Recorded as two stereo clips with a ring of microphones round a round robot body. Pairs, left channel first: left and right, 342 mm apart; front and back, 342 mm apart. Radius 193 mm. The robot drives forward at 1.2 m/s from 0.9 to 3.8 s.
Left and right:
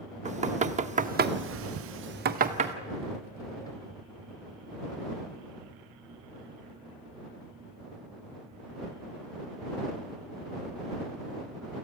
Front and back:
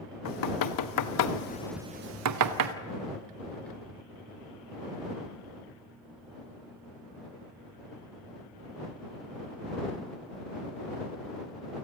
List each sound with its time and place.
0.2 s knocking: 20° right, 1.2 m; by 2.8 s 160° right, 1.4 m